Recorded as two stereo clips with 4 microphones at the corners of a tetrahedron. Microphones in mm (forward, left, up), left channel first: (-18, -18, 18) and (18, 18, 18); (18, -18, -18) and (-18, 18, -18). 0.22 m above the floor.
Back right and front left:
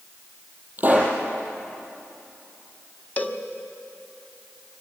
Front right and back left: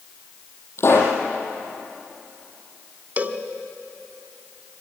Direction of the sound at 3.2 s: Straight behind.